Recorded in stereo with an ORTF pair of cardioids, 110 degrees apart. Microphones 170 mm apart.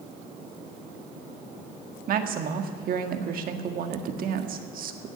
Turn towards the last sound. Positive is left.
turn(degrees=-55)